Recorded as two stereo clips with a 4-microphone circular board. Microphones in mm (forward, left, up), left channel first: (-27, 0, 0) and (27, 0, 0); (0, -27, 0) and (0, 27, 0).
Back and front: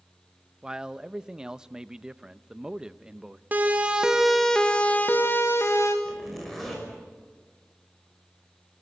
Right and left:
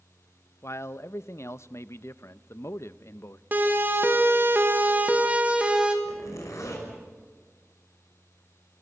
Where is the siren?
50° left, 2 m; by 6.0 s 160° left, 3 m.